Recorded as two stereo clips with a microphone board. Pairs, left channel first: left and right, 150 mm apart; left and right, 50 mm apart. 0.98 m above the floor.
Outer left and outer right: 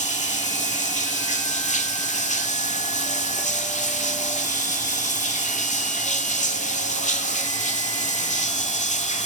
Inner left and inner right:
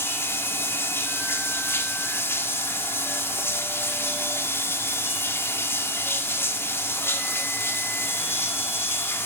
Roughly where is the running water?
Left.